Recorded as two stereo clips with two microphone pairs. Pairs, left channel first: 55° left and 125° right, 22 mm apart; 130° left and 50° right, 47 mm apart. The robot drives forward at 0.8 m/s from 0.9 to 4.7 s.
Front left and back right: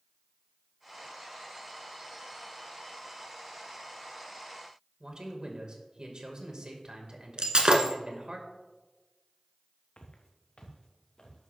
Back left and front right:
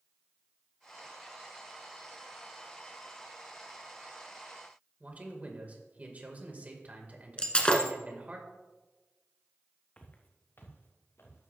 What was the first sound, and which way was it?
A man speaking, 100° right.